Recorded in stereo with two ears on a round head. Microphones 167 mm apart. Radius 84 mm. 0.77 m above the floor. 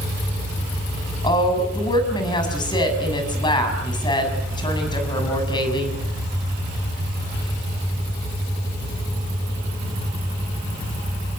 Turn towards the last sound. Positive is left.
turn(degrees=25)  # may be behind; listen again after turning